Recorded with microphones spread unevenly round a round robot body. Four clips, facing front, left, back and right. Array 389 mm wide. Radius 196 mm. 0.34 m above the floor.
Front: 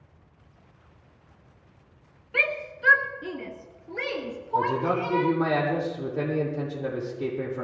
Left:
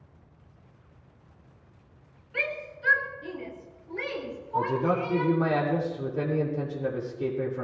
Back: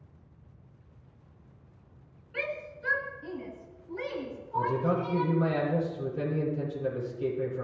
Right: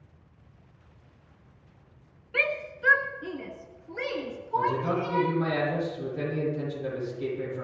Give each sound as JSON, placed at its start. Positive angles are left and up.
{"t": 2.3, "sound": "a shout", "azimuth_deg": -35, "distance_m": 3.5}
{"t": 4.5, "sound": "a man speaking", "azimuth_deg": 25, "distance_m": 9.0}